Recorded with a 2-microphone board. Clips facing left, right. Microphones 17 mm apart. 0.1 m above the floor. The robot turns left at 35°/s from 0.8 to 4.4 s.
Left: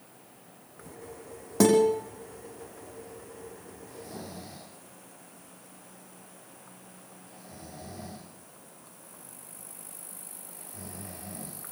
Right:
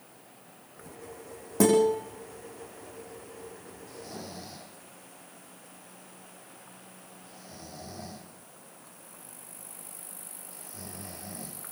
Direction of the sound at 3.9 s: 40° right (ahead or behind).